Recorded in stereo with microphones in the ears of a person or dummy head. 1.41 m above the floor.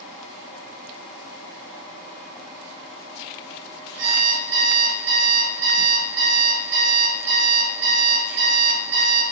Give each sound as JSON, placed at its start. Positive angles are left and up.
{"t": 4.0, "sound": "an alarm clock", "side_deg": -70, "distance_m": 2.5}